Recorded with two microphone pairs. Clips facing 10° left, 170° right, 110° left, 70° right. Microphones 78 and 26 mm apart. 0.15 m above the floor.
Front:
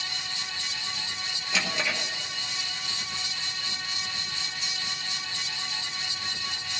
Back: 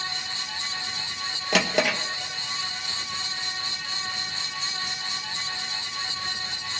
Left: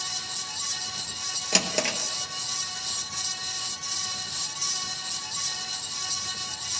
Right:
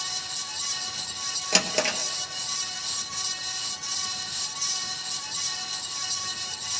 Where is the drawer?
150° right, 1.0 m.